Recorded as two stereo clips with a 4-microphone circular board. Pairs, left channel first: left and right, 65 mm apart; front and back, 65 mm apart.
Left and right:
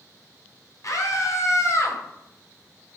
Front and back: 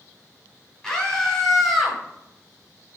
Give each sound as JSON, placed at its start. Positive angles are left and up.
{"t": 0.8, "sound": "a scream", "azimuth_deg": 80, "distance_m": 3.0}